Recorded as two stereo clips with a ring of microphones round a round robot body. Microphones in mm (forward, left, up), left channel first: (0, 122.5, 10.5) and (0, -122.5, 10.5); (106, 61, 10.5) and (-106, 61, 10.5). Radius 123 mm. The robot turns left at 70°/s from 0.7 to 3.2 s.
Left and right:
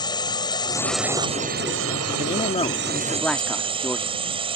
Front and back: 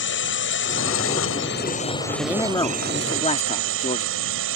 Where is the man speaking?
80° left; by 4.2 s 5° left.